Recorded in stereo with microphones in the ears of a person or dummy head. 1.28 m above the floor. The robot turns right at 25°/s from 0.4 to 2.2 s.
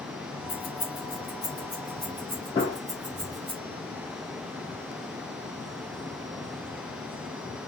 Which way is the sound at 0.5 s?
30° left (ahead or behind).